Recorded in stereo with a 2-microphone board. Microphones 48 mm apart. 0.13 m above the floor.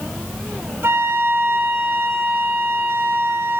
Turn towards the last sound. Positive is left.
turn(degrees=-65)  # may be behind; listen again after turning